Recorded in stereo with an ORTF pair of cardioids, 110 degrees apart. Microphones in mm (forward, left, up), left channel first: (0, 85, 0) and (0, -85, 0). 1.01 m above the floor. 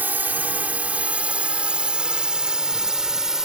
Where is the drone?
10° right; by 3.5 s 5° right.